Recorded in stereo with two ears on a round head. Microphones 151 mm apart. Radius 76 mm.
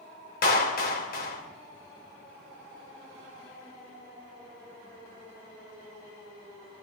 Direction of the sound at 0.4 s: 55° left (ahead or behind).